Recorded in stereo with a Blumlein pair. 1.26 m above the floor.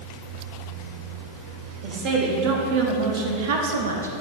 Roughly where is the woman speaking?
Ahead right.